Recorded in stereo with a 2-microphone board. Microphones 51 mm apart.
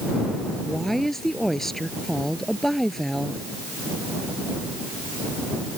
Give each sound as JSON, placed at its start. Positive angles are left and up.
{"t": 0.7, "sound": "a woman speaking", "side_deg": 5}